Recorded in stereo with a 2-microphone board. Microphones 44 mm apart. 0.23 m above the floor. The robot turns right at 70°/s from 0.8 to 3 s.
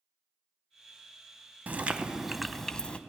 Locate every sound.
1.7 s chewing: 55° right, 0.5 m; by 3.0 s 40° left, 0.5 m